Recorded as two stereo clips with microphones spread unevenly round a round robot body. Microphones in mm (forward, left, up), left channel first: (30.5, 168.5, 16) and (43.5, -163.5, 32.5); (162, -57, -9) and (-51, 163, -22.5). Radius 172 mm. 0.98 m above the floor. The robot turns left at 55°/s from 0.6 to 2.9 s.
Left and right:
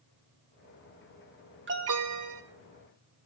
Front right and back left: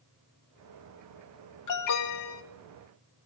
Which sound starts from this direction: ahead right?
An alarm, at 1.7 s.